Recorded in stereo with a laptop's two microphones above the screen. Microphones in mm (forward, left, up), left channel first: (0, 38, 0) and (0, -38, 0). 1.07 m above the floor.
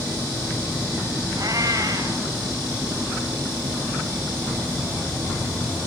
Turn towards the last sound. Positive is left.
turn(degrees=-50)  # may be behind; listen again after turning